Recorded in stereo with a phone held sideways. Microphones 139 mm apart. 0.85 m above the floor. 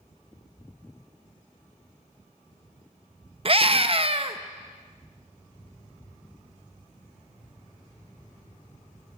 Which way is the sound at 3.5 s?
45° right (ahead or behind).